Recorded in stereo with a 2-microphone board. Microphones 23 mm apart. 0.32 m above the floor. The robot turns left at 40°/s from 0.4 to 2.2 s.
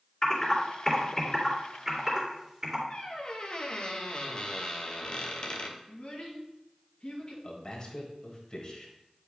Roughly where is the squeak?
Left.